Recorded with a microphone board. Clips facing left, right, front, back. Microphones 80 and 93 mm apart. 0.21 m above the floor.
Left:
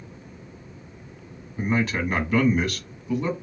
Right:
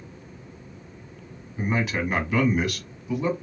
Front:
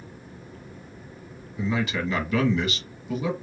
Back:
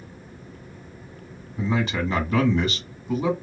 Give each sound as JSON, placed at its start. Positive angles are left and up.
{"t": 1.6, "sound": "a man speaking", "azimuth_deg": -170, "distance_m": 1.2}